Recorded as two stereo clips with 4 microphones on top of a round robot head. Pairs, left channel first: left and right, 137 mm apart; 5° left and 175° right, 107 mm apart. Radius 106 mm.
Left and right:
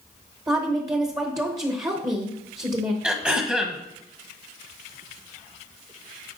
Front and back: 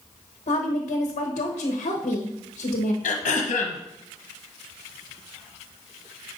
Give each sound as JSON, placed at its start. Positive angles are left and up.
{"t": 0.5, "sound": "a woman speaking", "azimuth_deg": -25, "distance_m": 1.0}
{"t": 3.0, "sound": "throat clearing", "azimuth_deg": -5, "distance_m": 1.0}